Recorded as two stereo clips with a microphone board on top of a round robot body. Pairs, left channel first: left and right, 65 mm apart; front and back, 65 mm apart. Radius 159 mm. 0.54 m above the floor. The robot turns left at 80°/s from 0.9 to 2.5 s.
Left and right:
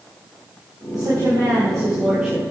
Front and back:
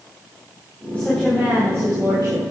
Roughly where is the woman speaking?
Ahead right.